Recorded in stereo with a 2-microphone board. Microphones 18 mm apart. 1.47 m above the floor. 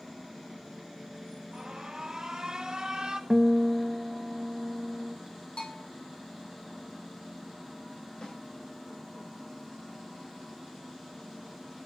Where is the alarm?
40° right (ahead or behind), 1.8 m.